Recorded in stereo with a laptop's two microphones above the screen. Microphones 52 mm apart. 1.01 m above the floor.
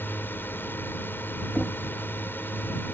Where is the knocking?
20° left (ahead or behind).